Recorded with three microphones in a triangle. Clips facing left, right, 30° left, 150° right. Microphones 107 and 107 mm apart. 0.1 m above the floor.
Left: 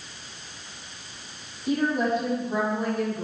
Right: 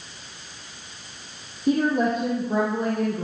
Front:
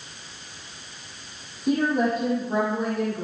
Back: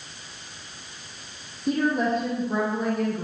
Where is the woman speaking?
55° right, 4.5 m.